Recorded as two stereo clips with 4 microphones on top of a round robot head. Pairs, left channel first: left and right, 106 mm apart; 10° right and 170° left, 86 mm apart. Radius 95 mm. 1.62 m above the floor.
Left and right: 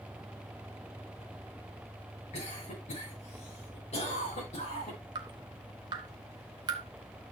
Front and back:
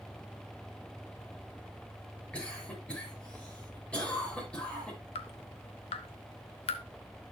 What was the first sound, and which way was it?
A cough, 70° left.